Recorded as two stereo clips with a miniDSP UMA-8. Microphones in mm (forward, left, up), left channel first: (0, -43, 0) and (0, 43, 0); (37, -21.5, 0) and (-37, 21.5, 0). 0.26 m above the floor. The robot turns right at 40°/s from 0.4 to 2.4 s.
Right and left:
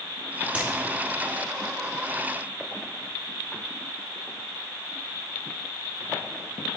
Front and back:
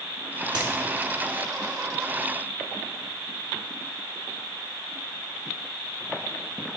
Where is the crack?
160° left, 2.5 m; by 0.7 s 165° left, 2.5 m.